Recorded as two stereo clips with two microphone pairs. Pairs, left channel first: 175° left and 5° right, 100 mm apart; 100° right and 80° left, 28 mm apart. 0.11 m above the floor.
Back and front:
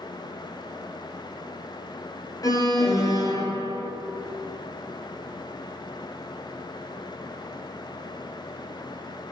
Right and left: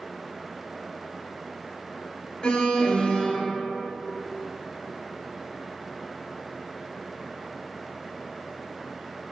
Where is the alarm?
150° right, 1.2 m.